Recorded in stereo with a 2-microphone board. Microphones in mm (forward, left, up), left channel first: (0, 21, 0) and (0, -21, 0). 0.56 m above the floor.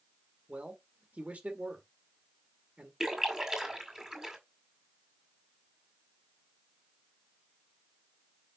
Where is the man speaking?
35° right (ahead or behind), 1.8 m.